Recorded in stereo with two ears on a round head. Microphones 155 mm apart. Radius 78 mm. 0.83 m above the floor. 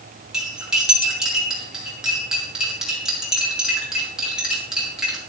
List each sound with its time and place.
0.3 s cutlery clinking: 5° right (ahead or behind), 5 m